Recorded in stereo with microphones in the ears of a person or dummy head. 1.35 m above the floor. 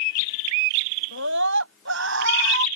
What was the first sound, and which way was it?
A scream, 80° right.